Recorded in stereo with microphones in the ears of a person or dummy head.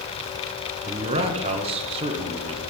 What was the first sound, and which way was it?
A man speaking, 25° right (ahead or behind).